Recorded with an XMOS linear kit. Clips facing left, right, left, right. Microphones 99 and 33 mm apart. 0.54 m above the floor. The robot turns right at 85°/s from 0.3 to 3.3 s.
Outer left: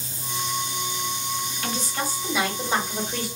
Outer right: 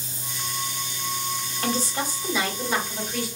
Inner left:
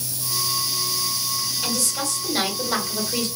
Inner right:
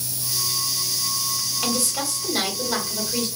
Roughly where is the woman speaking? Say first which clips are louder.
Outer right 5 dB, inner right 3 dB; ahead right.